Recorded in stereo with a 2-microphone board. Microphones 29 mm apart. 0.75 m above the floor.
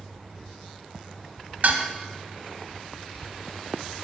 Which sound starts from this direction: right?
Dishes clattering, at 1.6 s.